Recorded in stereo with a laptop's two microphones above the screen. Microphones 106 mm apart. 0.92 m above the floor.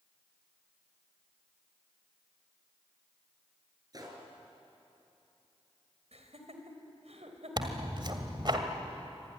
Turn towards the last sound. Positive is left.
turn(degrees=-45)  # may be behind; listen again after turning